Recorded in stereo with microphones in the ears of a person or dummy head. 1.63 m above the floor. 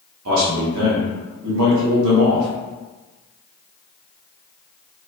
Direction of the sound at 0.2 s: 80° right.